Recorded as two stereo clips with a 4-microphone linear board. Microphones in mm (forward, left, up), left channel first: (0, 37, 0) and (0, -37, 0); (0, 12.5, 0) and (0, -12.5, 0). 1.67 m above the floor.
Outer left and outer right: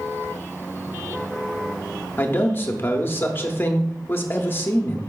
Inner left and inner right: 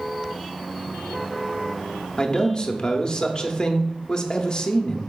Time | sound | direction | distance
2.2 | a man speaking | 30° left (ahead or behind) | 0.6 m